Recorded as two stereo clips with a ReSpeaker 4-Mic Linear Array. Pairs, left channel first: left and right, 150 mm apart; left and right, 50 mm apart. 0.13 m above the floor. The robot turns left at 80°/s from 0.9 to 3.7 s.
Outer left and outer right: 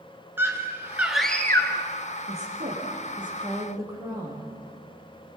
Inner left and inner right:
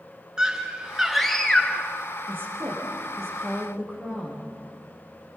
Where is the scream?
155° right, 1.8 m; by 1.9 s 125° left, 1.8 m.